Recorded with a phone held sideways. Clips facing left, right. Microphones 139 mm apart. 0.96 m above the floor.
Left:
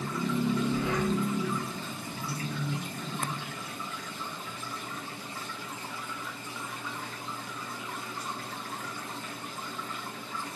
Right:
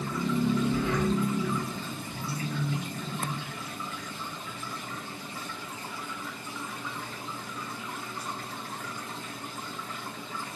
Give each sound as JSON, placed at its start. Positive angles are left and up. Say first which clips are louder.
{"t": 0.7, "sound": "breathing", "louder": "right 1 dB", "side_deg": 20, "distance_m": 1.2}